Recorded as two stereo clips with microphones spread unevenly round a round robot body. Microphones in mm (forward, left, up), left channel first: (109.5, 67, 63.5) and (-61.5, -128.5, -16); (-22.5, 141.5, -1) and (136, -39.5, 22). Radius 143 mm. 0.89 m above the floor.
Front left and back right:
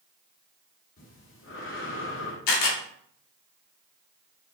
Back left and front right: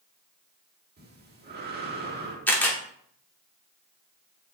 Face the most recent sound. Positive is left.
turn(degrees=50)